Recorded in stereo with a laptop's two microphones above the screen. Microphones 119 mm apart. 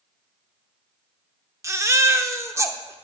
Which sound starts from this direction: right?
A baby crying, at 1.6 s.